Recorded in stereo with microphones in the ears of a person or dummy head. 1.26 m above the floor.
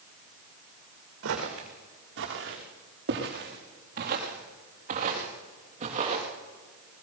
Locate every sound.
1.2 s footsteps: 75° right (ahead or behind), 5 m; by 6.3 s 35° right (ahead or behind), 7 m